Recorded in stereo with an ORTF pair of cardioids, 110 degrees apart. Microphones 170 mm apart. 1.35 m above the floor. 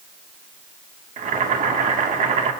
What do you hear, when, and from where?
1.2 s boiling: 50° right, 2 m